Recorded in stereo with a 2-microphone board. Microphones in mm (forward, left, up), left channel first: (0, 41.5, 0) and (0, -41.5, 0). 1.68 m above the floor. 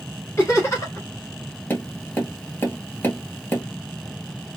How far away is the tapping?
About 2.5 m.